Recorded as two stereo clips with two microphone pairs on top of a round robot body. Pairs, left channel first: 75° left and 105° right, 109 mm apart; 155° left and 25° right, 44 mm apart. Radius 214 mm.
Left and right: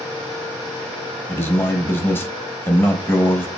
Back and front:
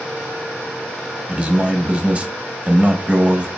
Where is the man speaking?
25° left, 0.9 m.